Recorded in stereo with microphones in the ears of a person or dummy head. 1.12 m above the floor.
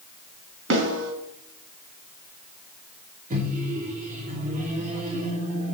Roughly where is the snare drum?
Right.